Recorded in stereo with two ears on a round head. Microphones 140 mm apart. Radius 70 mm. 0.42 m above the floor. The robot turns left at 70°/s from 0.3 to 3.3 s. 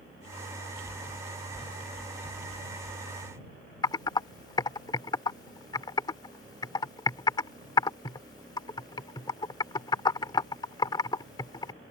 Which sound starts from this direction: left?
Typing on a keyboard, at 3.8 s.